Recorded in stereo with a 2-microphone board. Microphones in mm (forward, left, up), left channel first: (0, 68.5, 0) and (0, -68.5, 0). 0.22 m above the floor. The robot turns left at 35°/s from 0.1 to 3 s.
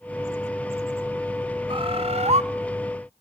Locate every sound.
1.7 s a bird: 35° right (ahead or behind), 0.8 m; by 2.4 s 50° right (ahead or behind), 0.8 m